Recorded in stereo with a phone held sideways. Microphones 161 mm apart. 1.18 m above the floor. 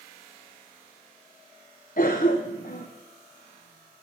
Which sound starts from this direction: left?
A cough, at 2.0 s.